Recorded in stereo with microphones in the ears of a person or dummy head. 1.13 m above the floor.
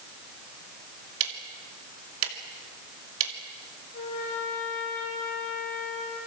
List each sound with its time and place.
1.2 s ticking: 85° right, 2.5 m
3.9 s a trumpet: 50° left (ahead or behind), 9 m